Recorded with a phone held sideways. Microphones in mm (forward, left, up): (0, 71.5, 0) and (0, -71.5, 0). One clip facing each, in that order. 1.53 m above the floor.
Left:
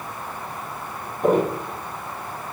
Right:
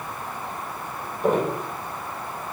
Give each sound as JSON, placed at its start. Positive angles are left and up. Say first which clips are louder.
{"t": 1.2, "sound": "footsteps", "louder": "left 3 dB", "side_deg": 45, "distance_m": 3.5}